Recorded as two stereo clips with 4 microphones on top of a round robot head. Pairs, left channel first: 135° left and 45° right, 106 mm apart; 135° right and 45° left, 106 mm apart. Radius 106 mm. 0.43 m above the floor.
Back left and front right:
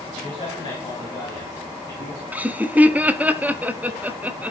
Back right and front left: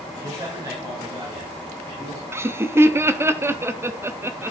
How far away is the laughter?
About 0.9 m.